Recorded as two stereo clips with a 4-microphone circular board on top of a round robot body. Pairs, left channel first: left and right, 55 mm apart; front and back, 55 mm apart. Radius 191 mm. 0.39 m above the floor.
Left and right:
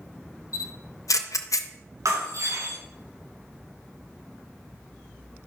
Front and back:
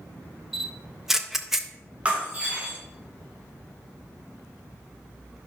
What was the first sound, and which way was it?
A camera shutter, 95° left.